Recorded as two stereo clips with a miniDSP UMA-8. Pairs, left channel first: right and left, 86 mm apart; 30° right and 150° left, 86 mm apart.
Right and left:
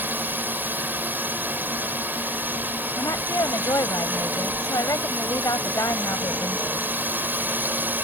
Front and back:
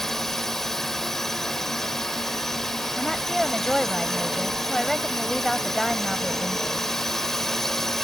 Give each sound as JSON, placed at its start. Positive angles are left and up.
{"t": 0.0, "sound": "a drone", "azimuth_deg": 50}
{"t": 3.0, "sound": "a woman speaking", "azimuth_deg": -120}